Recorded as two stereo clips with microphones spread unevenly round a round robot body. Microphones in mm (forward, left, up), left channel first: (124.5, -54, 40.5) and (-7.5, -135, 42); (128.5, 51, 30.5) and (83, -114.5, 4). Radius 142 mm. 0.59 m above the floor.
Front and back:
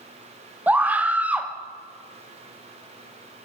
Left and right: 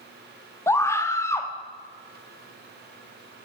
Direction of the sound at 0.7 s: 150° left.